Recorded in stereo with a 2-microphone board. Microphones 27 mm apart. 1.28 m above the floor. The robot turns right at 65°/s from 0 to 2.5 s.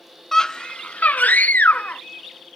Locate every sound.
0.3 s a scream: 10° left, 0.5 m; by 2.0 s 120° left, 0.5 m